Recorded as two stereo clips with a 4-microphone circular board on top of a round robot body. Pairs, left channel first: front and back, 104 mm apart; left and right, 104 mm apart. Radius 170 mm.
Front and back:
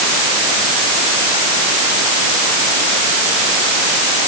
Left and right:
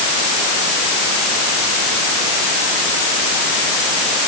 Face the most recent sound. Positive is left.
No sound to turn to.